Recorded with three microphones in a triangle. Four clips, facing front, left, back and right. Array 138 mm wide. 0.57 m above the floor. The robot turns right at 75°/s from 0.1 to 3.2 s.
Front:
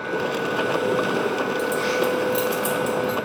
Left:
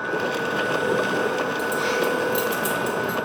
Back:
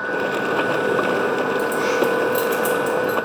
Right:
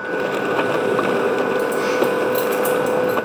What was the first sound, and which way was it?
Keys jangling, 150° left.